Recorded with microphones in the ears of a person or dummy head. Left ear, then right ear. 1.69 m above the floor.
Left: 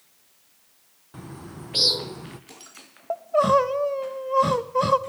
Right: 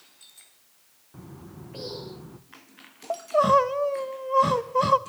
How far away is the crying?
About 1.0 m.